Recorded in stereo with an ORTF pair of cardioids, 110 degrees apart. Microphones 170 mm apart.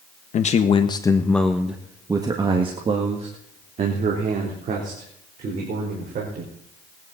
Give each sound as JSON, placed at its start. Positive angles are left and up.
{"t": 0.3, "sound": "a man speaking", "azimuth_deg": 50, "distance_m": 1.4}